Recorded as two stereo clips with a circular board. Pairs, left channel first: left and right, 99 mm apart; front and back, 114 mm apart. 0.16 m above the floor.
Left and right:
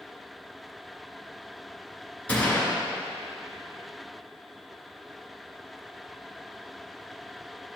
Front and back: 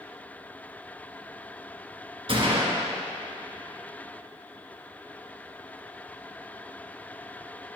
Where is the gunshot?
165° left, 2 m.